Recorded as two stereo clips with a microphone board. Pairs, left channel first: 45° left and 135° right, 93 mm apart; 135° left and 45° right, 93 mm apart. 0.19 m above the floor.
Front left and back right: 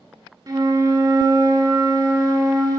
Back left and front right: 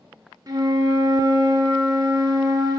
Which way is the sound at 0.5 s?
90° right.